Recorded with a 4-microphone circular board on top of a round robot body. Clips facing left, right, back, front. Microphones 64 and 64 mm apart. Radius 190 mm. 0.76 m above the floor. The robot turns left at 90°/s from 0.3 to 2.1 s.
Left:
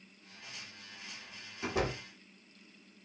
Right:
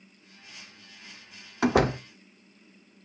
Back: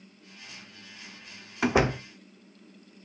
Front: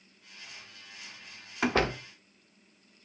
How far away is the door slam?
About 0.8 m.